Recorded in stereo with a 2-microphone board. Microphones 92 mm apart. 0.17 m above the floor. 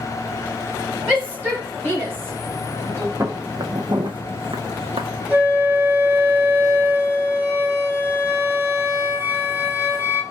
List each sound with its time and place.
1.1 s a shout: 15° right (ahead or behind), 3 m; by 3.1 s 35° right (ahead or behind), 2 m
3.2 s footsteps: 30° right (ahead or behind), 0.8 m; by 5.1 s 80° right, 0.8 m
5.3 s a flute: 15° right (ahead or behind), 1.4 m